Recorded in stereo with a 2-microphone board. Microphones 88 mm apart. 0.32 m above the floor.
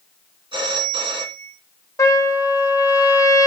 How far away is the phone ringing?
About 2 m.